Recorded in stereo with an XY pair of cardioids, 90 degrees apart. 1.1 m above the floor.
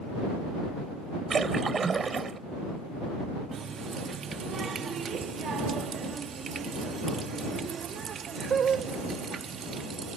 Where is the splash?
45° right.